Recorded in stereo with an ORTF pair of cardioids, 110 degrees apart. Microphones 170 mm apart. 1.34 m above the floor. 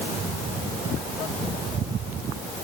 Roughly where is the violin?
I don't hear a violin.